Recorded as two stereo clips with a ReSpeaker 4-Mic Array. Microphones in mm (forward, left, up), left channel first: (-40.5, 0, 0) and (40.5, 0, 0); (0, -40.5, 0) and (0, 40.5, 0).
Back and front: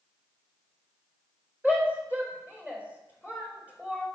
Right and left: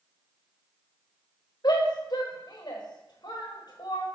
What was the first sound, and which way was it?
A shout, 70° right.